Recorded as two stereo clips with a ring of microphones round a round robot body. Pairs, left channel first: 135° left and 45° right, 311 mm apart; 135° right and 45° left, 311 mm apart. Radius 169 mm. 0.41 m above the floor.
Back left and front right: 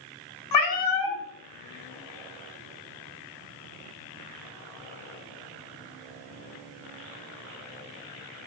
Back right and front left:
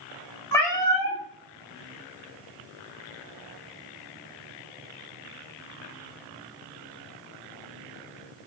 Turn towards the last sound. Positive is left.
turn(degrees=145)